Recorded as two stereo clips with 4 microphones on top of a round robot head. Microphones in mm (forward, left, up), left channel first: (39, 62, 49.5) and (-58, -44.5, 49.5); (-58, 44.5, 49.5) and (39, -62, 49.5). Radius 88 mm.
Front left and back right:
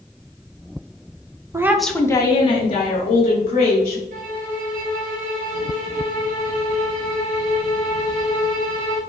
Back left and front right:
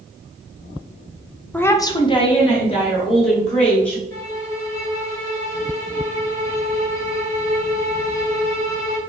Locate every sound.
1.5 s a woman speaking: 165° right, 0.6 m; by 4.0 s 85° left, 2 m
4.1 s a violin: 155° right, 1.5 m